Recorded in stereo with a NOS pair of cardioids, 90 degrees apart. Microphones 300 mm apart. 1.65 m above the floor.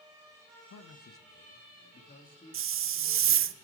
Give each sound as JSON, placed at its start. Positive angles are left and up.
{"t": 0.7, "sound": "a man speaking", "azimuth_deg": 55, "distance_m": 1.8}
{"t": 2.5, "sound": "a hiss", "azimuth_deg": -45, "distance_m": 0.6}